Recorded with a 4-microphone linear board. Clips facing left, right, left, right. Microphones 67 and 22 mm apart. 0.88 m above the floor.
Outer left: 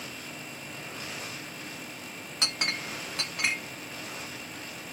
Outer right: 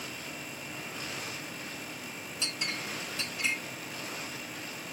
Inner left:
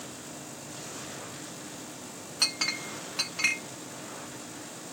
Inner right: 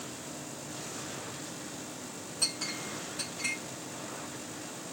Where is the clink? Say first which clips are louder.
Outer left 4 dB, inner left 5 dB; 60° left (ahead or behind), 0.8 m.